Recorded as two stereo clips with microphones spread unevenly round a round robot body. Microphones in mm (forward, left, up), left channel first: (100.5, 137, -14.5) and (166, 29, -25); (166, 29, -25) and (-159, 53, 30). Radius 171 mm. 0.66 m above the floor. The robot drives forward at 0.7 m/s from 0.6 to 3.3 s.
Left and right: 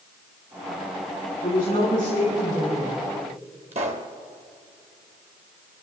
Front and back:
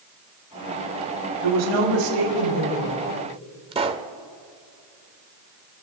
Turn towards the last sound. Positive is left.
turn(degrees=-115)